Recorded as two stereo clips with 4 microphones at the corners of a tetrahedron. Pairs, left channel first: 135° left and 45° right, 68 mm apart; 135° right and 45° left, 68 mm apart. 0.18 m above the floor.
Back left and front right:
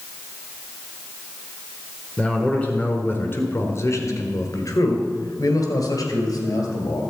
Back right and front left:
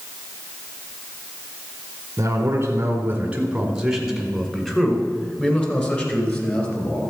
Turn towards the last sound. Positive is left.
turn(degrees=165)